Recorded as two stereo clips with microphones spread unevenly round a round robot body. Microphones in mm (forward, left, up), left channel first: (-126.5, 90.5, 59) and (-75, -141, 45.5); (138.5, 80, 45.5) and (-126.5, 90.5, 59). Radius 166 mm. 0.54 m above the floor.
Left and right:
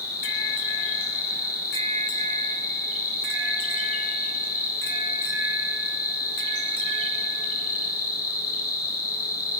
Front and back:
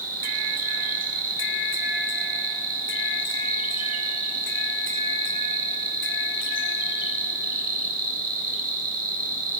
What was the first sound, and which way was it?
An insect, 120° left.